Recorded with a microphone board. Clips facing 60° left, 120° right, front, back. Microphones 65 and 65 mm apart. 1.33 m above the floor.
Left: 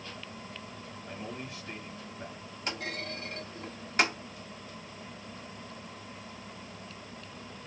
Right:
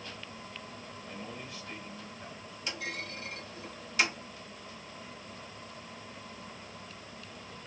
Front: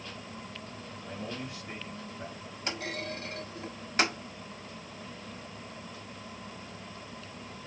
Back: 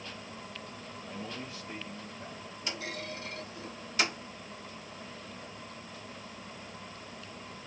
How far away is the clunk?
About 1.4 m.